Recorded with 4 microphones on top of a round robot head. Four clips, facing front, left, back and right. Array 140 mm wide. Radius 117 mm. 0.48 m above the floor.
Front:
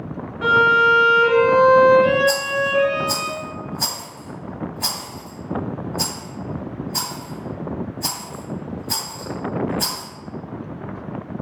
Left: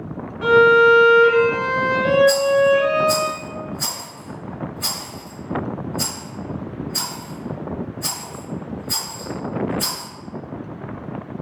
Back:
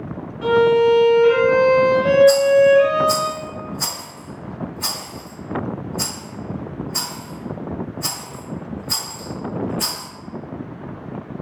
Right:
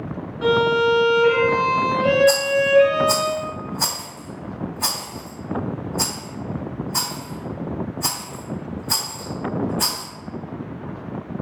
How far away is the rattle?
About 1.7 m.